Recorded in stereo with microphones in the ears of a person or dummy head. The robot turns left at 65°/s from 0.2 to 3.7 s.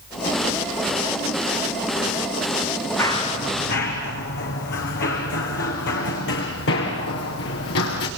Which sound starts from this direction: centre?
Running footsteps, at 3.0 s.